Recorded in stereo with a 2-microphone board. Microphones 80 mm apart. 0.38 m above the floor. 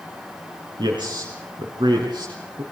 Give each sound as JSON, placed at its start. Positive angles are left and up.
{"t": 0.8, "sound": "a man speaking", "side_deg": -80, "distance_m": 4.5}